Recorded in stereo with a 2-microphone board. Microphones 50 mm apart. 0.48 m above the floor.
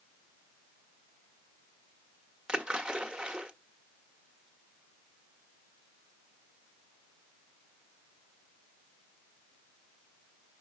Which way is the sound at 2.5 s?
15° right (ahead or behind).